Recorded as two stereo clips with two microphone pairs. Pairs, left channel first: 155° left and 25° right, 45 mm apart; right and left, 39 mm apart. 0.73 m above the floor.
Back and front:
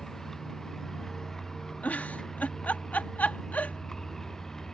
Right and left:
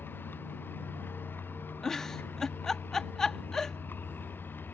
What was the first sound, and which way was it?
A vehicle, 125° right.